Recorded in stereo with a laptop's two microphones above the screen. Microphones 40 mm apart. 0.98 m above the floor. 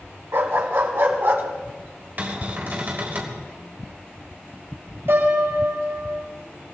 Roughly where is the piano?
Right.